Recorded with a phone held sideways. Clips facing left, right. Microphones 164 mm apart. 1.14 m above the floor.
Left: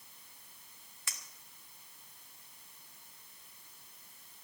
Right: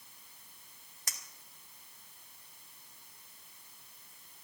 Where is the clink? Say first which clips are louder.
Right 1 dB; 40° right (ahead or behind), 1.5 m.